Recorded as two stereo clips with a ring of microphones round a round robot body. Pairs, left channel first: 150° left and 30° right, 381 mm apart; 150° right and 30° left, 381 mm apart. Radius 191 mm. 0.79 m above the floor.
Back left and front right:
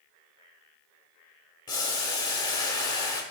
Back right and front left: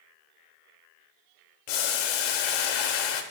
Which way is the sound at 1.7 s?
130° right.